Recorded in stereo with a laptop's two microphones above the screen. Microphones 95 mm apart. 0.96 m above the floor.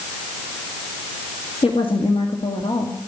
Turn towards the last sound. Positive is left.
turn(degrees=70)  # may be behind; listen again after turning